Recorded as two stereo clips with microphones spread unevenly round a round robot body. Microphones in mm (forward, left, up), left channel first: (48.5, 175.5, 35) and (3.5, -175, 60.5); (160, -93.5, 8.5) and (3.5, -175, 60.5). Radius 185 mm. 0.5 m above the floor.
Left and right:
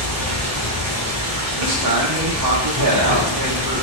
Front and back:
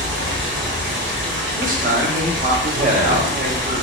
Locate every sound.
0.0 s running water: 140° right, 1.1 m
1.6 s a man speaking: 110° right, 1.4 m